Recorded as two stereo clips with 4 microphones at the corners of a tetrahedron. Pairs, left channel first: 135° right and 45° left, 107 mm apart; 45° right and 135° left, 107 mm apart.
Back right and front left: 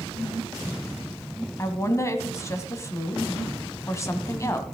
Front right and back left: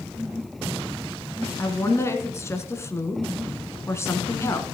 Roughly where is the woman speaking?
Right.